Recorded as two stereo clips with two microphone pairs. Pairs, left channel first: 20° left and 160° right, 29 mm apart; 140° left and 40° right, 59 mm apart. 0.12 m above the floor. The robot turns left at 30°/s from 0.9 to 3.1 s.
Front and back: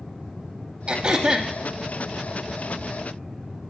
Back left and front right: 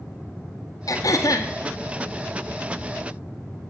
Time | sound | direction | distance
0.9 | throat clearing | 145° left | 0.7 m